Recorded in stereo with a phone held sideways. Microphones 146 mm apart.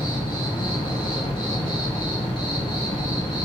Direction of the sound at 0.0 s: 35° left (ahead or behind).